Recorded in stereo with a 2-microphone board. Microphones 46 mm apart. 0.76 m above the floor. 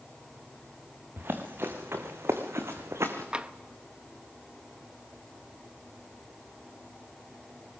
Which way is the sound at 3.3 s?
20° right (ahead or behind).